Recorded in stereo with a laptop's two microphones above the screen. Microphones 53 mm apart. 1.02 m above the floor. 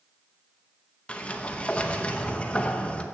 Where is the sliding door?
25° left (ahead or behind), 0.8 m.